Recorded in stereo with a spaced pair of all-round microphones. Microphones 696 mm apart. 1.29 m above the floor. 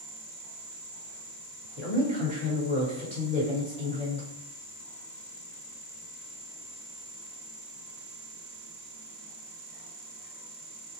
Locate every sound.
1.8 s a woman speaking: 40° right (ahead or behind), 1.4 m